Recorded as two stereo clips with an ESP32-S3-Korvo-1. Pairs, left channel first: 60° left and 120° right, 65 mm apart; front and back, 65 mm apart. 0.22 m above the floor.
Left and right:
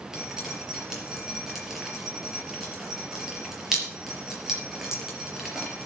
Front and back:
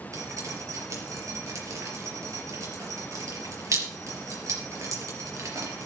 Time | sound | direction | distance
0.1 | dripping | 160° left | 4.5 m